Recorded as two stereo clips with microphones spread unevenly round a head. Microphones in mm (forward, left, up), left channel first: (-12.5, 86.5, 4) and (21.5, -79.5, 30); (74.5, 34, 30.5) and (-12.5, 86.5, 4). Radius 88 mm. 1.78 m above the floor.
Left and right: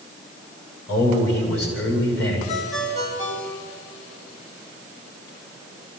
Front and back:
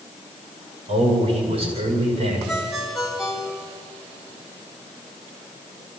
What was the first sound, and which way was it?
A man speaking, 125° left.